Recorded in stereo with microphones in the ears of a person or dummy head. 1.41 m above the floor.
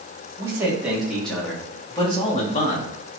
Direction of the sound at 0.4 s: 10° right (ahead or behind).